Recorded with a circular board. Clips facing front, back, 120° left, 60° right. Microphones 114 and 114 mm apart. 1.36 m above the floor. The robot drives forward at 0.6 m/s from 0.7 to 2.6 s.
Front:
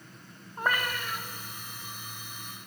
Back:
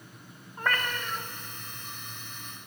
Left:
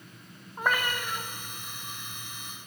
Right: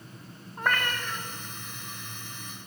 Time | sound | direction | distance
0.6 | a cat meowing | 50° left | 0.6 m